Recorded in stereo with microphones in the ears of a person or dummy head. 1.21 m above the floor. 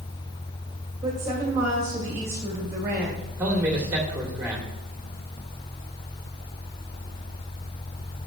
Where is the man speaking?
10° right (ahead or behind), 2 m.